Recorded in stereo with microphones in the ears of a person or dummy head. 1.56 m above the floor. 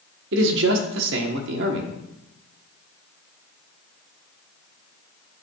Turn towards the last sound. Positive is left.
turn(degrees=-60)  # may be behind; listen again after turning